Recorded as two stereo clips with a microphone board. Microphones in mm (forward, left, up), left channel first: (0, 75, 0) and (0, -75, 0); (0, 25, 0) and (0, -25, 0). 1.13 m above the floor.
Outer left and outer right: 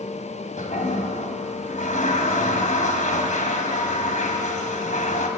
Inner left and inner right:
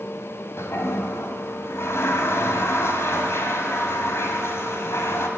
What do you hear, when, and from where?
0.6 s a toilet flushing: 55° left (ahead or behind), 2.5 m